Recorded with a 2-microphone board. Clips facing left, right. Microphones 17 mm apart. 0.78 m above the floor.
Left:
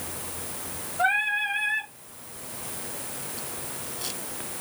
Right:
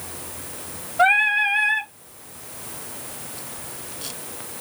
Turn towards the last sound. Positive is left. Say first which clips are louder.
# right 7 dB
turn(degrees=-60)  # may be behind; listen again after turning